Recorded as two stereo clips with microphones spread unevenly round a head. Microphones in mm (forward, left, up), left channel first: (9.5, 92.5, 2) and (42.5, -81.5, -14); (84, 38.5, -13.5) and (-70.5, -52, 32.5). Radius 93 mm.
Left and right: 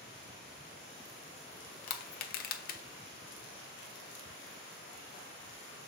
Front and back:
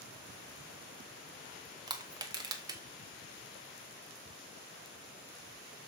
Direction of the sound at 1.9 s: 135° left.